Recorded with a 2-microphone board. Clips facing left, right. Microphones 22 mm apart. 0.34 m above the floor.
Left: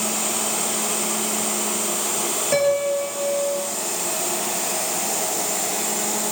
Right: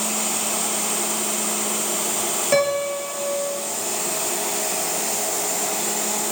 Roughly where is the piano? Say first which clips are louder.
Left 1 dB; centre.